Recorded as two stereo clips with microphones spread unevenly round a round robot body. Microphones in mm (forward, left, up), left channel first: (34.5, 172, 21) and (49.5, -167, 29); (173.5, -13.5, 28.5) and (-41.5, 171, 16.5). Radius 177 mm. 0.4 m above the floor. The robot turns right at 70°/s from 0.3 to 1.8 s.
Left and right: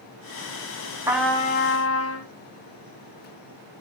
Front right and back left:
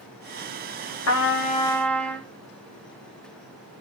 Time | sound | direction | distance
1.1 | a trumpet | 5° right | 1.9 m